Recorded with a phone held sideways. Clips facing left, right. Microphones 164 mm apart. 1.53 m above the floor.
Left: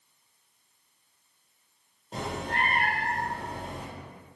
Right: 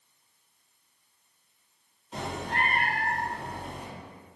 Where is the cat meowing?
50° left (ahead or behind), 1.6 m.